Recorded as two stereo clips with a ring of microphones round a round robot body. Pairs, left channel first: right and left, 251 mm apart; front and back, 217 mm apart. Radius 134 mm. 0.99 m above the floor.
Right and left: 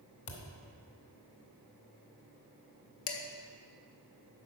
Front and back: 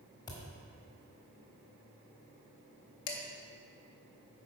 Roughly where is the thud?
Right.